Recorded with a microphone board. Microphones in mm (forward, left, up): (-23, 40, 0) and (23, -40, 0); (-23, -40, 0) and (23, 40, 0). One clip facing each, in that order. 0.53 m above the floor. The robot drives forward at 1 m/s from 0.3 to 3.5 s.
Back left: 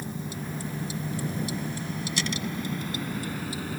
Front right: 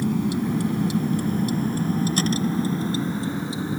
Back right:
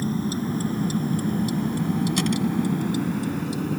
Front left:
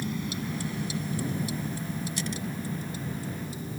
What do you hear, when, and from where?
0.0 s a vehicle: 70° right; by 3.8 s 125° right